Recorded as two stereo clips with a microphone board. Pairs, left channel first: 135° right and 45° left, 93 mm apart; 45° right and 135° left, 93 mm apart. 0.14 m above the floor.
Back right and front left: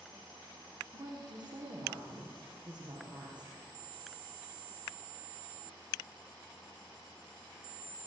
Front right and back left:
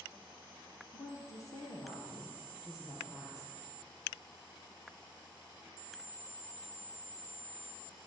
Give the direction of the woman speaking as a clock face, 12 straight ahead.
12 o'clock.